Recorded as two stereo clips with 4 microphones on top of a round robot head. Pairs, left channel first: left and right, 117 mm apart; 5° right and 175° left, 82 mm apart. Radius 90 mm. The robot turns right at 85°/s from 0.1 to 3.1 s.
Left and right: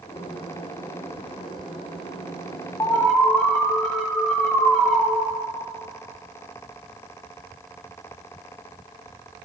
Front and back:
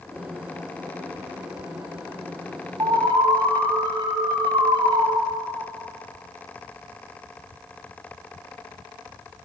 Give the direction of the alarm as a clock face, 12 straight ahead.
7 o'clock.